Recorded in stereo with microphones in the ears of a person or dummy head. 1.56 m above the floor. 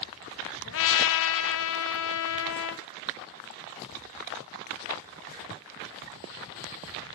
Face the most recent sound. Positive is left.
turn(degrees=75)  # may be behind; listen again after turning